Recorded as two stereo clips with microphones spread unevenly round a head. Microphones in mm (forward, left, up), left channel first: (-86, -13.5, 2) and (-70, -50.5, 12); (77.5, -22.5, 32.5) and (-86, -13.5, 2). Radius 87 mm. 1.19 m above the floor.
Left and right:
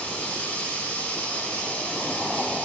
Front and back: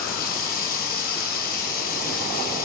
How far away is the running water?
About 1.6 m.